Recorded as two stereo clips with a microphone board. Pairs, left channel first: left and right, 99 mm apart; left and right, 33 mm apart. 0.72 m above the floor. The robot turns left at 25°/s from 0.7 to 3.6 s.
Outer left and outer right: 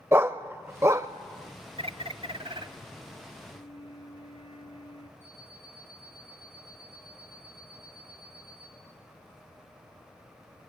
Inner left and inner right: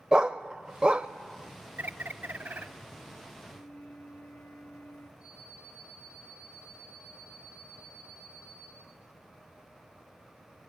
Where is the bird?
75° right (ahead or behind), 0.9 m; by 2.7 s 55° right (ahead or behind), 0.9 m.